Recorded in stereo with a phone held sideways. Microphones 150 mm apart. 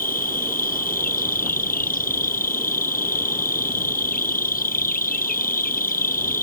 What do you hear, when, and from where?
0.0 s an insect: 75° left (ahead or behind)